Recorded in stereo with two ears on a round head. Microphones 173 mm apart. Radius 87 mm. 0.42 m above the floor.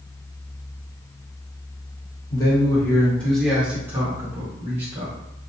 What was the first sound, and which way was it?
A man speaking, 20° left (ahead or behind).